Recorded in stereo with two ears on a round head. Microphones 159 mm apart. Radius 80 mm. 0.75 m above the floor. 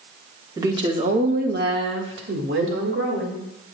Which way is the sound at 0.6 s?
20° right (ahead or behind).